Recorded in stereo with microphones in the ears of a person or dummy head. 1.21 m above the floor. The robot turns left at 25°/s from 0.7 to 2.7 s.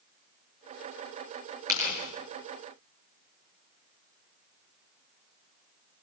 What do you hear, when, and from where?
1.7 s tearing paper: 10° right (ahead or behind), 7.5 m; by 2.0 s 5° right (ahead or behind), 7.5 m